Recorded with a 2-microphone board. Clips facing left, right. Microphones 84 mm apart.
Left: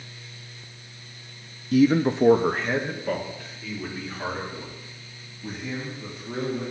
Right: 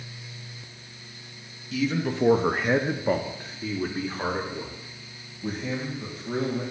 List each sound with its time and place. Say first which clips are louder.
1.7 s a man speaking: left 8 dB; 55° left (ahead or behind), 0.6 m; by 6.6 s 45° right (ahead or behind), 4 m